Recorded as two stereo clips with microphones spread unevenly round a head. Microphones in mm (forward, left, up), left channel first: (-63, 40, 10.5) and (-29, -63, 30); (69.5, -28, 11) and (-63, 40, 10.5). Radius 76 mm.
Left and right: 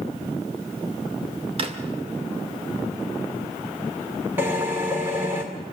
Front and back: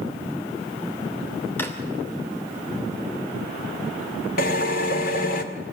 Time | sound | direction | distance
1.6 | a drawer | 105° right | 2.5 m
4.4 | a drill | 5° left | 2 m